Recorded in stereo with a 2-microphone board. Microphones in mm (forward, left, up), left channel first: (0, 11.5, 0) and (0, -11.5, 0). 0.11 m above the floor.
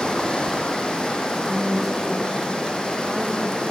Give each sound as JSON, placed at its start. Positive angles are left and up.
{"t": 0.0, "sound": "running water", "side_deg": 40, "distance_m": 3.0}
{"t": 1.3, "sound": "a woman speaking", "side_deg": -10, "distance_m": 5.5}